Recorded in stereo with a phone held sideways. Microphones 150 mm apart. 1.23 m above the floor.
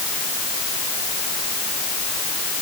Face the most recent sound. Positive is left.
No sound to turn to.